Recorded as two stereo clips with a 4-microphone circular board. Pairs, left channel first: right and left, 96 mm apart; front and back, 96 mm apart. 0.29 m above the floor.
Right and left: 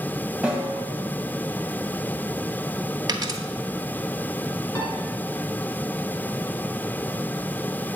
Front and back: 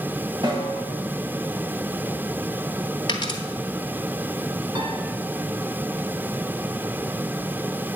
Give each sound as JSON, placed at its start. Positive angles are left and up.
{"t": 0.4, "sound": "a snare drum", "azimuth_deg": 170, "distance_m": 2.0}
{"t": 3.1, "sound": "a dropped coin", "azimuth_deg": 40, "distance_m": 1.0}
{"t": 4.8, "sound": "a piano", "azimuth_deg": -145, "distance_m": 1.9}